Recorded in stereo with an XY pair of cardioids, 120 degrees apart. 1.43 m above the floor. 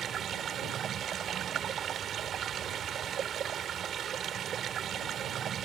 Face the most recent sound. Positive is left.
turn(degrees=-50)